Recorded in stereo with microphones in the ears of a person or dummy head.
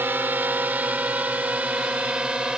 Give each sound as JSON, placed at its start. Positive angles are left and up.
{"t": 0.0, "sound": "a drone", "side_deg": -10}